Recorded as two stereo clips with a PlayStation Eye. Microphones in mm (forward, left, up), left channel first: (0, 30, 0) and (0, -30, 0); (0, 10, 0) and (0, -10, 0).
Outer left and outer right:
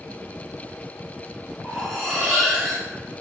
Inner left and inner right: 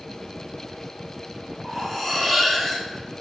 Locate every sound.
1.6 s cutlery clinking: 10° left (ahead or behind), 1.1 m